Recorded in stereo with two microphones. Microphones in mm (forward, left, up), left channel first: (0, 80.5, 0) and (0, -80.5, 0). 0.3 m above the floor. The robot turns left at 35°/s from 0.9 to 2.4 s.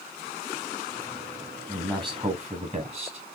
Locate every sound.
1.7 s a man speaking: 20° right (ahead or behind), 1.9 m; by 3.2 s 40° right (ahead or behind), 1.9 m